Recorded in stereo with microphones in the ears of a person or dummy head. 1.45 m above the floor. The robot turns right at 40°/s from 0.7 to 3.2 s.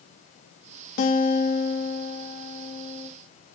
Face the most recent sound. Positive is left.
turn(degrees=150)